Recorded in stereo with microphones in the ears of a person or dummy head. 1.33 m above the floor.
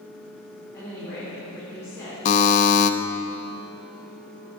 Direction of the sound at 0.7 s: 15° left (ahead or behind).